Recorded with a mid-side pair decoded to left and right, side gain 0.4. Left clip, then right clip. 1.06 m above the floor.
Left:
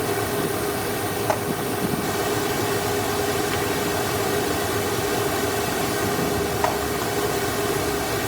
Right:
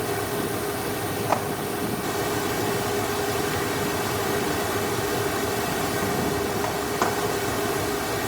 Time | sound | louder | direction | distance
0.0 | a fan | left 3 dB | 30° left | ?